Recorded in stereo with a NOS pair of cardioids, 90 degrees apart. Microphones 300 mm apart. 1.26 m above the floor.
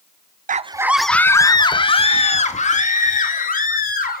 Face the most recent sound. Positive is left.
turn(degrees=30)